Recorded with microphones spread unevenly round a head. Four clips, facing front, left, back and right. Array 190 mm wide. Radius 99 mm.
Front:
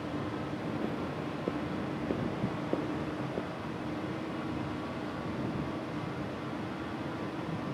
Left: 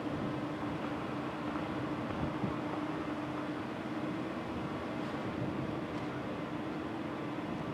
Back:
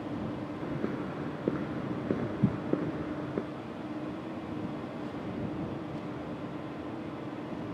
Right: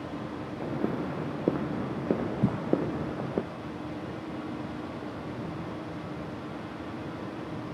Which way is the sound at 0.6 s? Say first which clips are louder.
Right 6 dB, back 2 dB; 110° right.